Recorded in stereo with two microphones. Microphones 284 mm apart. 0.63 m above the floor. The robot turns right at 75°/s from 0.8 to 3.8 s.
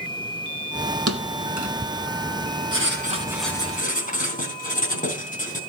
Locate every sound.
1.1 s a thud: 55° right (ahead or behind), 2 m; by 1.7 s 70° right (ahead or behind), 2 m
2.7 s writing: 55° right, 4 m; by 5.6 s 30° left, 4 m